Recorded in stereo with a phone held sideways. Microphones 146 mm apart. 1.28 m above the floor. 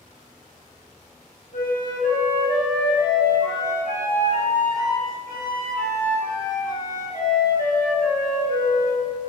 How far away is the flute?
About 3 m.